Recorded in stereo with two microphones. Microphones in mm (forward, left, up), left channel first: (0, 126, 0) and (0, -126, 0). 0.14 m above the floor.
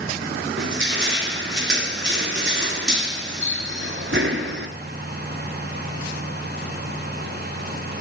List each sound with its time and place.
0.6 s crushing: 50° right (ahead or behind), 1.3 m